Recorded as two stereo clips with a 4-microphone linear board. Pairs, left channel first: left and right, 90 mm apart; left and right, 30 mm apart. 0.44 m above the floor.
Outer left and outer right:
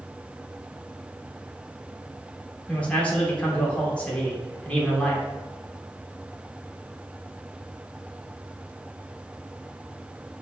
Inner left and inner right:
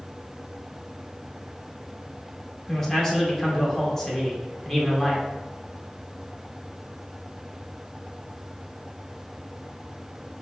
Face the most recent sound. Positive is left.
turn(degrees=15)  # may be behind; listen again after turning